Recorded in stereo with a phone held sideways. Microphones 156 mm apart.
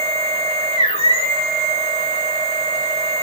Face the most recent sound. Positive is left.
turn(degrees=40)  # may be behind; listen again after turning